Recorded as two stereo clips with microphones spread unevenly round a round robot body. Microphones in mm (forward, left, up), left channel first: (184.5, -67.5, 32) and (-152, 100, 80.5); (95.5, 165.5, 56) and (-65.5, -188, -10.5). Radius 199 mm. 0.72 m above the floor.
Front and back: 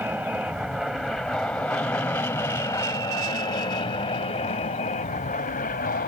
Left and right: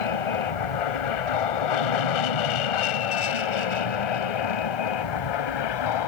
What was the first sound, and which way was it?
An aircraft, 65° left.